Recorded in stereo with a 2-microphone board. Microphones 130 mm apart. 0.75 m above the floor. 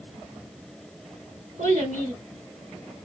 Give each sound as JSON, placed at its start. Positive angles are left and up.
{"t": 1.6, "sound": "a child speaking", "side_deg": -80, "distance_m": 1.8}